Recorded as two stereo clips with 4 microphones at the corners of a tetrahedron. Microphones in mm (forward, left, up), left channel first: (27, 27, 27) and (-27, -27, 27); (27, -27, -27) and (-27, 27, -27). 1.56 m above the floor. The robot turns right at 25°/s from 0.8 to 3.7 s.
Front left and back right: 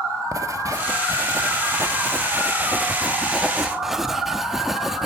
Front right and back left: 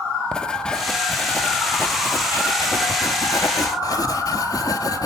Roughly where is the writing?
Behind right.